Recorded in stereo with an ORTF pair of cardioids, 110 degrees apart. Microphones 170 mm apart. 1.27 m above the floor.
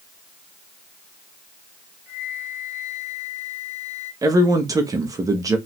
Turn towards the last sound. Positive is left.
turn(degrees=-20)